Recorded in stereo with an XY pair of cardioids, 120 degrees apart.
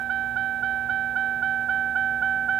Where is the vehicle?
60° right; by 2.6 s 45° right.